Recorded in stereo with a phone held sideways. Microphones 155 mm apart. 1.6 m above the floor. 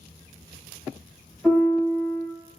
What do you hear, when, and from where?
1.4 s a piano: 10° left (ahead or behind), 1.0 m